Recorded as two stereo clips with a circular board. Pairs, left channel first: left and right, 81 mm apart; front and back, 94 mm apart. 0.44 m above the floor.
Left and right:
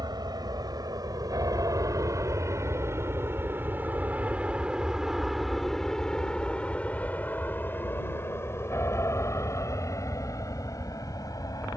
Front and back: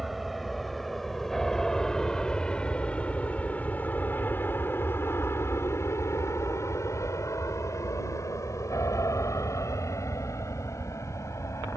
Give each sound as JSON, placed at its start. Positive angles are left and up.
{"t": 0.0, "sound": "an aircraft", "azimuth_deg": -90}